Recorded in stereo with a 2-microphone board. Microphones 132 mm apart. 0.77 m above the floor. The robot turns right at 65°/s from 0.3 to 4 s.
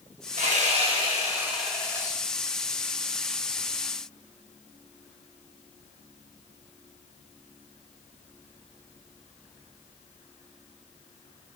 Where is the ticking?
I don't hear ticking.